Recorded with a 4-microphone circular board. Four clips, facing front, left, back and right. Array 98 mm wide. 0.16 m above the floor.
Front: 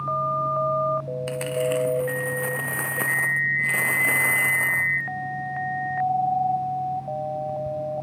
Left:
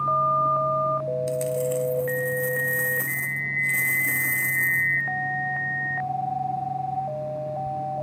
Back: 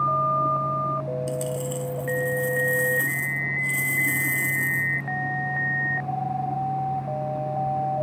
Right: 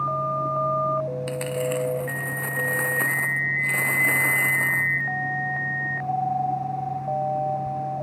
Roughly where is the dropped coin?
Ahead right.